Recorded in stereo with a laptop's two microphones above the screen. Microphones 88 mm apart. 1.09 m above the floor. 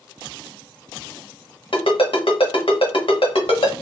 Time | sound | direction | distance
1.7 | a ringtone | 85° left | 1.2 m